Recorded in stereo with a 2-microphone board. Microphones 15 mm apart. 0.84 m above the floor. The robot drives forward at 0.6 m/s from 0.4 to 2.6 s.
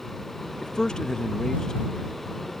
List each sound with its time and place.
0.6 s a man speaking: 40° left (ahead or behind); by 1.9 s 35° left (ahead or behind)